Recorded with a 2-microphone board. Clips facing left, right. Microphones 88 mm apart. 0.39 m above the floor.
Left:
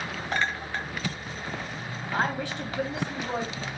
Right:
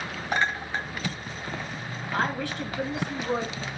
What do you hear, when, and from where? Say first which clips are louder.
0.3 s a clink: right 3 dB; 15° right (ahead or behind), 1.5 m
2.1 s a woman speaking: even; 20° left (ahead or behind), 3 m